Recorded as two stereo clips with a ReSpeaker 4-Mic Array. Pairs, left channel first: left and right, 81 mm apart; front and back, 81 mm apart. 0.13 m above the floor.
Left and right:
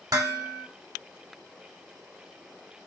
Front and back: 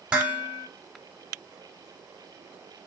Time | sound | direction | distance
0.1 | dishes clattering | 105° right | 1.5 m